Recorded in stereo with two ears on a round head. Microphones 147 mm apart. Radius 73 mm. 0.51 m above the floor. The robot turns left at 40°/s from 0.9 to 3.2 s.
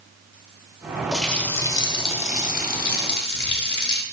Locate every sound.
1.1 s a running tap: straight behind, 0.9 m; by 4.0 s 100° left, 0.9 m